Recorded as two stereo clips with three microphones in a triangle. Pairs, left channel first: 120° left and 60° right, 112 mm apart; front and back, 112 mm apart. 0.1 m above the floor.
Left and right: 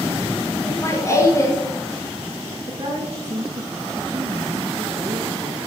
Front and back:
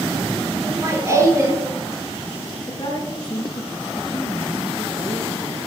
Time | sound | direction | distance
0.6 | laughter | 150° left | 1.3 m
2.7 | a woman speaking | 35° right | 1.8 m